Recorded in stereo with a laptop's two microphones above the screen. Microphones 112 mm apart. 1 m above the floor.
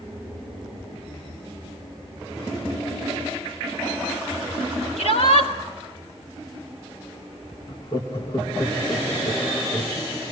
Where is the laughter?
50° left (ahead or behind), 1.5 m.